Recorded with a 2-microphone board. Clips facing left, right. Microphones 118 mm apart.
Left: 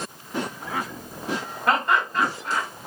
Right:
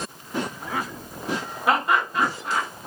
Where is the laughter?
10° right (ahead or behind), 1.3 m.